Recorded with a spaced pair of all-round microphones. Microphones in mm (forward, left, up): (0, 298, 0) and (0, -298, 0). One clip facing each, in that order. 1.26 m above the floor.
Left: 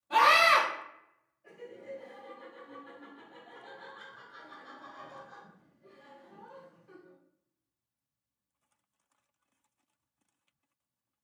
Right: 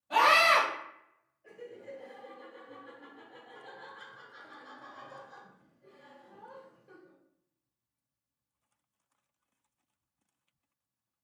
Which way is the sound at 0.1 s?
15° right (ahead or behind).